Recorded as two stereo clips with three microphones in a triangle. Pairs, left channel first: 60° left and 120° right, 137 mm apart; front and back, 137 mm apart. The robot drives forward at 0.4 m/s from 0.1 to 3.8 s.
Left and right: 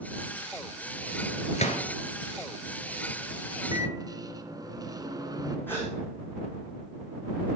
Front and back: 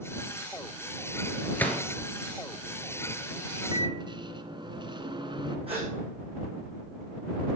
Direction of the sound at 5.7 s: 135° left.